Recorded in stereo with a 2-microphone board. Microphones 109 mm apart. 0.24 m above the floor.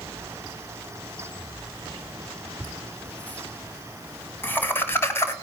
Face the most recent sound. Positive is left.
turn(degrees=25)  # may be behind; listen again after turning